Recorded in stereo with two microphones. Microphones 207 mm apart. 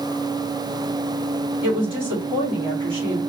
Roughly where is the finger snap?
No finger snap in this recording.